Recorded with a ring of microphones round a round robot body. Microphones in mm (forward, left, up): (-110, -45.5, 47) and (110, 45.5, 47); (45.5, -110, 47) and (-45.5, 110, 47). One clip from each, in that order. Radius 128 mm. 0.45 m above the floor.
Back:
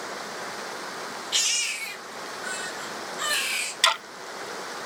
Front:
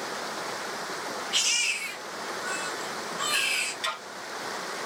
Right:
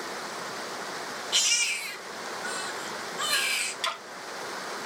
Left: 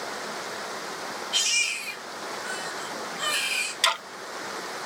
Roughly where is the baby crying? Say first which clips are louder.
Even, even; behind right.